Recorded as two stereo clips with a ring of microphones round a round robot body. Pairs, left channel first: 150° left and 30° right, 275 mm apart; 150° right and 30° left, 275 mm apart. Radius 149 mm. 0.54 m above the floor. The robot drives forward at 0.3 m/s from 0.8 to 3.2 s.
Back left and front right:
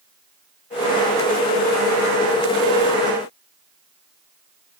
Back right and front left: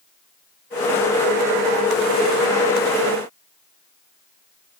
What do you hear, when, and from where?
Only background noise.